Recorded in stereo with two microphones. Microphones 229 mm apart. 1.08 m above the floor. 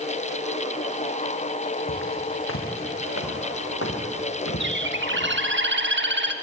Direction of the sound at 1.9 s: 65° left (ahead or behind).